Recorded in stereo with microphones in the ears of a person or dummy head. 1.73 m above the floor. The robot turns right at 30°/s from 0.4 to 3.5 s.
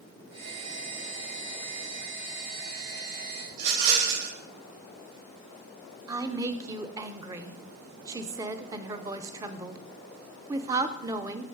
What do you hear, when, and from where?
3.5 s a rattle: 60° right (ahead or behind), 4.5 m
6.1 s a woman speaking: 20° right (ahead or behind), 0.8 m